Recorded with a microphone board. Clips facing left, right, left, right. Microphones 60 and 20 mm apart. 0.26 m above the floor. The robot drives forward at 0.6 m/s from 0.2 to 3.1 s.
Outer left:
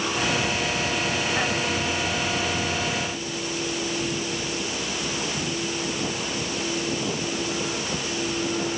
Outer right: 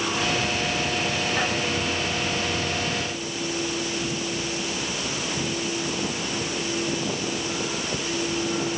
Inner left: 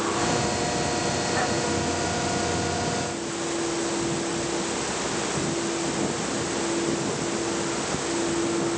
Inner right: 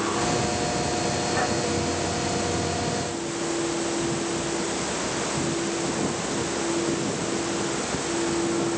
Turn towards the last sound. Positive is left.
No sound to turn to.